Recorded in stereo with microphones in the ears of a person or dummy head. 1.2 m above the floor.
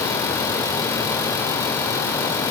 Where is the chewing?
No chewing in this recording.